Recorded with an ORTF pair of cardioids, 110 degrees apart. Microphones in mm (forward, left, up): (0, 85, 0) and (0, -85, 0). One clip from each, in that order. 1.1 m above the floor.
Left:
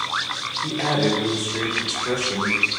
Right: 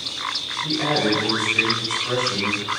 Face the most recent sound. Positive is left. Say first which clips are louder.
# right 1 dB
turn(degrees=45)